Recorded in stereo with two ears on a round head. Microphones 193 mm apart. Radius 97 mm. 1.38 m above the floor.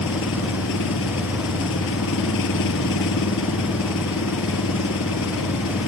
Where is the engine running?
65° left (ahead or behind).